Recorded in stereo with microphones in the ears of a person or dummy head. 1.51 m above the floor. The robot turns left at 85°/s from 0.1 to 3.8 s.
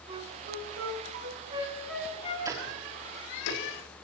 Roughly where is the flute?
Right.